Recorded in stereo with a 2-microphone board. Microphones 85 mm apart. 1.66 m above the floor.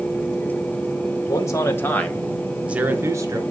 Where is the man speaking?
40° left (ahead or behind), 2 m; by 3.4 s 45° right (ahead or behind), 1.9 m.